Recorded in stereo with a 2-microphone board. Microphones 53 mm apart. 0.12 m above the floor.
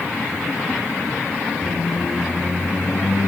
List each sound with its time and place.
1.6 s a squeak: 50° left (ahead or behind), 5 m